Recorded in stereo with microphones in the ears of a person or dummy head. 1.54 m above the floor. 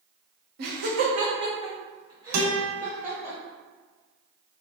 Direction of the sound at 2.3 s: 85° right.